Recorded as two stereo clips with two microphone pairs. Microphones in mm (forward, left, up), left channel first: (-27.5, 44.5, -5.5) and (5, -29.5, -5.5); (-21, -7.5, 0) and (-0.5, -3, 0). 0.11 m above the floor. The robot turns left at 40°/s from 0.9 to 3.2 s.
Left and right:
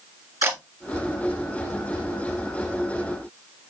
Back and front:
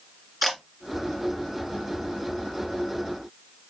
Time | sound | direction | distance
0.4 | a camera shutter | 85° right | 1.8 m